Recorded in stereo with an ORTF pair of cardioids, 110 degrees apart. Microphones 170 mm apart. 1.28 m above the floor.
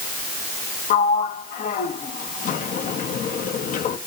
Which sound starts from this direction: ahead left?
A sliding door, at 0.9 s.